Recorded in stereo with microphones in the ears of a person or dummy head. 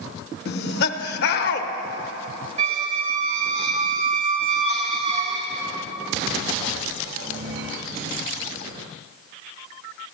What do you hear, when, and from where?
0.5 s laughter: 55° left (ahead or behind), 1.0 m
2.6 s a squeak: 40° right (ahead or behind), 0.8 m